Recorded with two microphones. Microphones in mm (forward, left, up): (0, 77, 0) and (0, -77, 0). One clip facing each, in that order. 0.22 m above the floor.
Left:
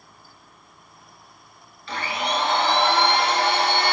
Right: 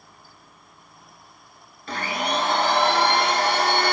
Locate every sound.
1.9 s a blender: 50° right (ahead or behind), 1.6 m